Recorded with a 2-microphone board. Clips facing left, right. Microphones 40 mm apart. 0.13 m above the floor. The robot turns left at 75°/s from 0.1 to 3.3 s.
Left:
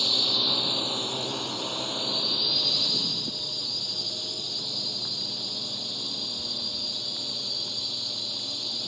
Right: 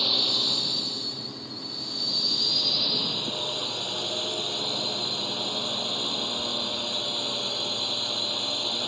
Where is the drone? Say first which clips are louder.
Even; 165° right; by 8.9 s 45° right.